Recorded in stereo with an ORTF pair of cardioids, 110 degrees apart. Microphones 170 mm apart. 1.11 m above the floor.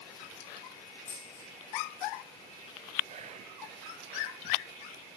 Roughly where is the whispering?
Ahead right.